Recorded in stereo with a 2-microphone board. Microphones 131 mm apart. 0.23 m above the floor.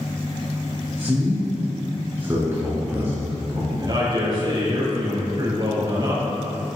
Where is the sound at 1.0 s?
20° right (ahead or behind), 2.5 m.